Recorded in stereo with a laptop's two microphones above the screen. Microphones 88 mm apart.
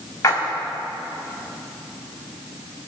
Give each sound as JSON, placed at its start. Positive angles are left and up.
{"t": 0.2, "sound": "a splash", "side_deg": 35, "distance_m": 5.5}